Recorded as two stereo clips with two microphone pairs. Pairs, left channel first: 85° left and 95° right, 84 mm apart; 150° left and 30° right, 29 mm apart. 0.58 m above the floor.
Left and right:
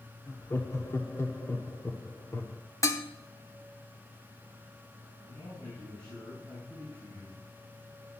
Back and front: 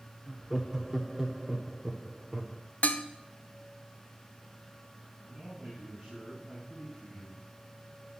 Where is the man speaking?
55° left, 4.5 m.